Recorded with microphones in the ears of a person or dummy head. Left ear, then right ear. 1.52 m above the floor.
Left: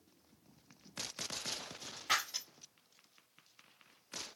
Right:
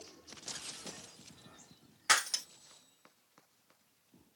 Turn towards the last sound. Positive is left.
turn(degrees=-60)  # may be behind; listen again after turning